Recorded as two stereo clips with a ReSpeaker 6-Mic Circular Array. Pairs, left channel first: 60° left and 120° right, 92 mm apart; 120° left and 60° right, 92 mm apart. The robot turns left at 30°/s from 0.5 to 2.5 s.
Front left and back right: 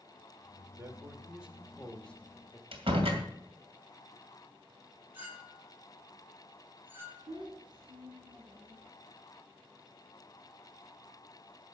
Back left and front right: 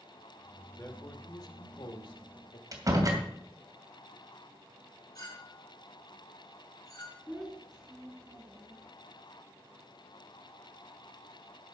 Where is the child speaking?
145° right, 4 m.